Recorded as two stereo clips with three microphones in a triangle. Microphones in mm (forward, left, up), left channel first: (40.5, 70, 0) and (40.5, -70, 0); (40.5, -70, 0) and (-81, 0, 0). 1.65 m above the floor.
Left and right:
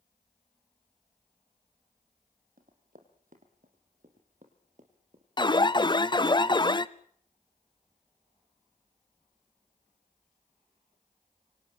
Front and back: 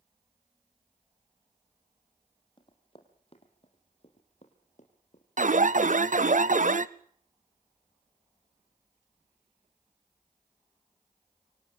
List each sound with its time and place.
2.6 s running footsteps: 85° right, 4 m; by 5.2 s 60° right, 4 m
5.4 s an alarm: 145° left, 0.8 m